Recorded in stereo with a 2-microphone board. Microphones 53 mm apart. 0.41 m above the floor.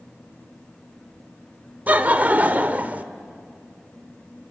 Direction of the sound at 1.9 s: 30° right (ahead or behind).